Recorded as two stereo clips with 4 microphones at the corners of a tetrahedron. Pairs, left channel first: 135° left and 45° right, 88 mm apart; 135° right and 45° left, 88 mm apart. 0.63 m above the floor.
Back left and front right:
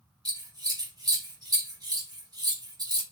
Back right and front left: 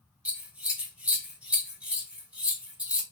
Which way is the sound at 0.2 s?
25° right.